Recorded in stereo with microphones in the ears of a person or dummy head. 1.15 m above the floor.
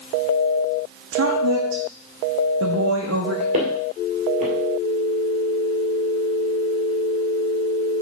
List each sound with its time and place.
1.1 s a woman speaking: 70° right (ahead or behind), 1.0 m
3.5 s footsteps: 40° right (ahead or behind), 1.6 m